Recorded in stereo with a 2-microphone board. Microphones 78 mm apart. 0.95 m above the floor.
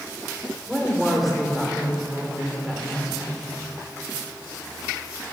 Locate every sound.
0.7 s a woman speaking: centre (ahead or behind), 2.5 m